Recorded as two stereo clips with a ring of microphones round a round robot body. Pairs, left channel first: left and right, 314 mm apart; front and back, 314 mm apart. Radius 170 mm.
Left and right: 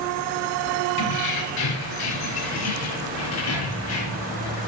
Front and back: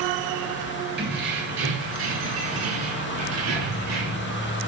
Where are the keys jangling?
115° left, 4 m; by 4.3 s 135° left, 5.5 m.